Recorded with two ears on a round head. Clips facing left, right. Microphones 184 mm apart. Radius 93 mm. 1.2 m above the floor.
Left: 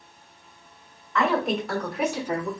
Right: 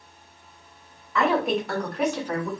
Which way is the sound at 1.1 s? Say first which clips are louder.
Right 1 dB; 5° right (ahead or behind).